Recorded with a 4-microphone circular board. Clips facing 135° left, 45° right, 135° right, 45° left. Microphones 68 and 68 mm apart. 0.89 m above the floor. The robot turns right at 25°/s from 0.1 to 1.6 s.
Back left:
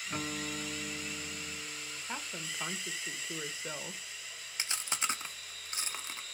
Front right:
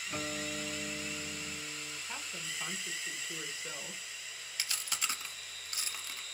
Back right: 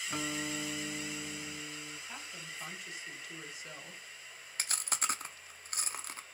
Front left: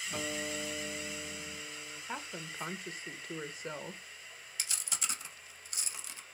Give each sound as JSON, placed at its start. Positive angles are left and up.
{"t": 0.1, "sound": "a guitar", "azimuth_deg": -165, "distance_m": 1.6}
{"t": 2.1, "sound": "a woman speaking", "azimuth_deg": 75, "distance_m": 0.6}
{"t": 4.6, "sound": "chewing", "azimuth_deg": -165, "distance_m": 0.5}